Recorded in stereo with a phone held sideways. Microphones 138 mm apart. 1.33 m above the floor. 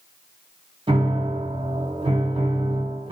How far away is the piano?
About 0.7 m.